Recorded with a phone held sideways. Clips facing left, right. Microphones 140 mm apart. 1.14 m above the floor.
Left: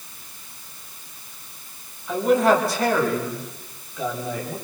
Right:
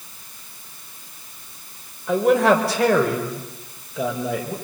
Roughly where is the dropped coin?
No dropped coin in this recording.